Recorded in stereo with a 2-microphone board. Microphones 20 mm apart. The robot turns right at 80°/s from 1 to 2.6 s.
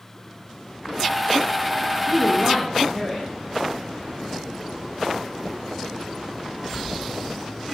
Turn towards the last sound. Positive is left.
turn(degrees=40)